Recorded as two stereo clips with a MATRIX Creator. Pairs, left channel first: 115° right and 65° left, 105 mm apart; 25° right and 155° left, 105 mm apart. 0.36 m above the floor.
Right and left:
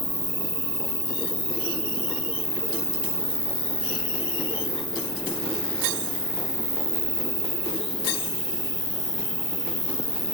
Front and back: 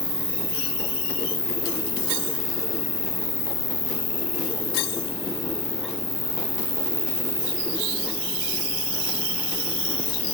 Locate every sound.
0.0 s an insect: 100° left